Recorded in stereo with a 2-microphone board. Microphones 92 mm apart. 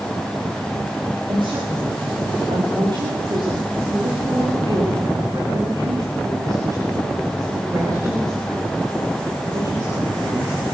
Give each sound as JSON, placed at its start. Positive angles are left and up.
{"t": 1.3, "sound": "a woman speaking", "side_deg": -65, "distance_m": 8.5}